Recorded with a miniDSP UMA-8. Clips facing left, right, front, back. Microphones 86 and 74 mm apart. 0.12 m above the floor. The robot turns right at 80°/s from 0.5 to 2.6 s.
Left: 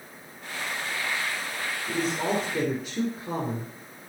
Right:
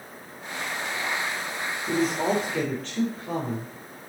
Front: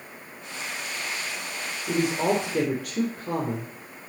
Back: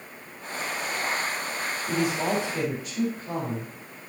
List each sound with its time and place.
1.9 s a man speaking: 45° right, 4 m; by 3.7 s 10° left, 4 m